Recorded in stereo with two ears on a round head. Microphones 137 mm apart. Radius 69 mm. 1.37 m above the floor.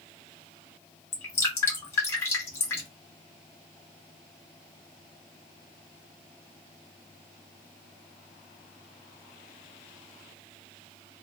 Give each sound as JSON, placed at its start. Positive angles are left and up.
{"t": 1.1, "sound": "dripping", "side_deg": 15, "distance_m": 0.9}